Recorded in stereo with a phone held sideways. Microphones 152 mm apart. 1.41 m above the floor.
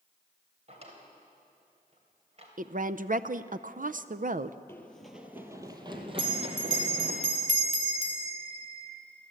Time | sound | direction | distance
0.7 | a drawer | 45° right (ahead or behind) | 3.5 m
2.6 | a woman speaking | 60° right (ahead or behind) | 0.5 m
4.7 | running footsteps | 15° left (ahead or behind) | 1.8 m
6.2 | a bell | 50° right (ahead or behind) | 2.0 m